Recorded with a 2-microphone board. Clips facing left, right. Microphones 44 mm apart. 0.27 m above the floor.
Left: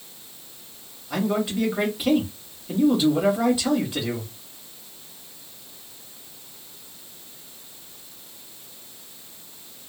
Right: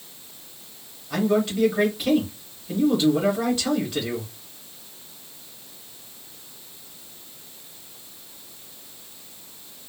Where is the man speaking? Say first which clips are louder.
Right 2 dB; 10° left (ahead or behind), 1.0 m.